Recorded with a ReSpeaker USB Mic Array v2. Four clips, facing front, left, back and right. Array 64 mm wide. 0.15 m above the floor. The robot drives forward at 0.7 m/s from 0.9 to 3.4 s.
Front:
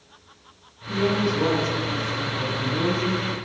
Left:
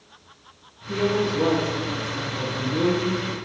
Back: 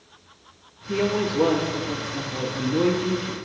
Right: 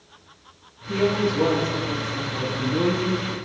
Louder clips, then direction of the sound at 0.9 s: Right 1 dB, even; 175° right.